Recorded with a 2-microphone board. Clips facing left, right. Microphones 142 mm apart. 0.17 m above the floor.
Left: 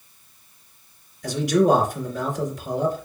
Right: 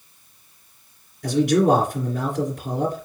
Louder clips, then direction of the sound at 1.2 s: Right 1 dB; 50° right (ahead or behind).